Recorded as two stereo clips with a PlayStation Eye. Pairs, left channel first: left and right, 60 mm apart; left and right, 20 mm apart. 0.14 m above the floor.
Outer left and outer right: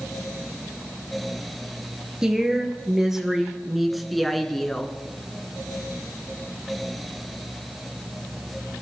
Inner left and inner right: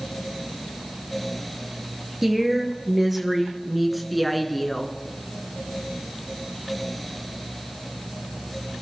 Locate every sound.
2.2 s a woman speaking: 10° right (ahead or behind), 2.5 m; by 5.0 s 10° left (ahead or behind), 1.6 m